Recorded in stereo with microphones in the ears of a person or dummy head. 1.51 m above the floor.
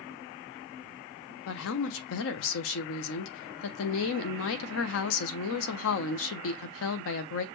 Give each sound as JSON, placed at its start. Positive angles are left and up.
{"t": 1.5, "sound": "a woman speaking", "side_deg": 75, "distance_m": 0.8}